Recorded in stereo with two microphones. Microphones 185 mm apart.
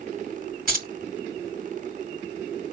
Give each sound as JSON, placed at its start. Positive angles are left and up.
{"t": 0.7, "sound": "keys jangling", "side_deg": -50, "distance_m": 1.1}